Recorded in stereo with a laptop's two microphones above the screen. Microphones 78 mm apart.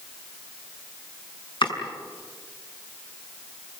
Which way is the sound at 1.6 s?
85° left.